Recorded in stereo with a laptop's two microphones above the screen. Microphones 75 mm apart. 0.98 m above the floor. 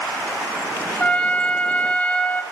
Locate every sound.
1.0 s a trumpet: 15° left (ahead or behind), 1.2 m